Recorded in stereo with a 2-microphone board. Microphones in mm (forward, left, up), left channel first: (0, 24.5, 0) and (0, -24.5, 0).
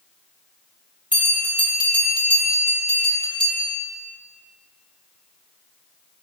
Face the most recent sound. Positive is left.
turn(degrees=-45)  # may be behind; listen again after turning